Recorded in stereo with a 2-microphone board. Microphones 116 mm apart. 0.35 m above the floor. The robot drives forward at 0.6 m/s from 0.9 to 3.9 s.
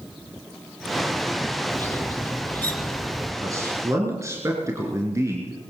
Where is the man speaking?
25° right (ahead or behind), 4 m.